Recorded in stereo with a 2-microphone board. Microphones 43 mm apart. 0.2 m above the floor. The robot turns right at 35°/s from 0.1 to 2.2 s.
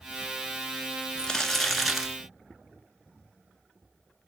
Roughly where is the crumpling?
Behind.